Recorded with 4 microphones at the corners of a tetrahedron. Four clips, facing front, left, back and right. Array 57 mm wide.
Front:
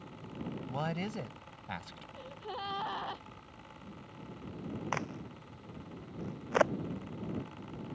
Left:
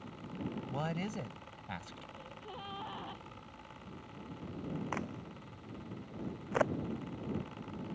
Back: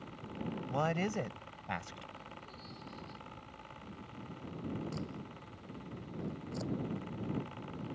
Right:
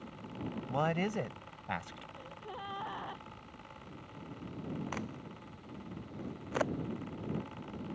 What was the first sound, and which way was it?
A man speaking, 115° right.